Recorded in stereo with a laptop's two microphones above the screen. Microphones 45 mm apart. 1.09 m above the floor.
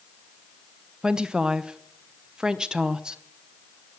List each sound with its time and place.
1.0 s a woman speaking: 15° right (ahead or behind), 0.7 m